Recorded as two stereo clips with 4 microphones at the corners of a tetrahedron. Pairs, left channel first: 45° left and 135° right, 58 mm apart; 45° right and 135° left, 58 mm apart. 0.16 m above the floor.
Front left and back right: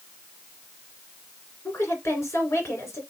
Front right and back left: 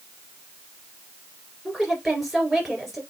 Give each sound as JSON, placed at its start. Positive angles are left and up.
{"t": 1.6, "sound": "a woman speaking", "azimuth_deg": 45, "distance_m": 2.5}